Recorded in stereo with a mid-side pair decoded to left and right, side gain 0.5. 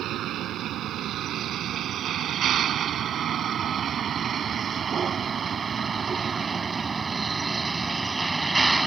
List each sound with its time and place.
0.0 s a vehicle: 65° right; by 8.9 s 15° right